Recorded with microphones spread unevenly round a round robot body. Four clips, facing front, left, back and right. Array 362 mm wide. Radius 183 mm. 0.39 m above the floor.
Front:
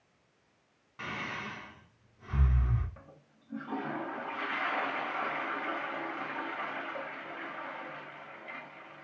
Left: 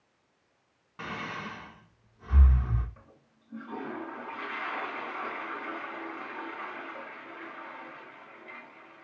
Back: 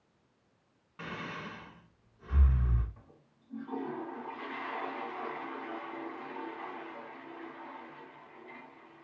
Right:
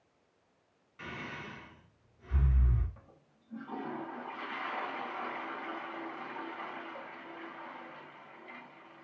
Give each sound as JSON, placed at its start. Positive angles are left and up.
{"t": 1.0, "sound": "breathing", "azimuth_deg": 80, "distance_m": 3.0}
{"t": 3.0, "sound": "a toilet flushing", "azimuth_deg": 10, "distance_m": 1.8}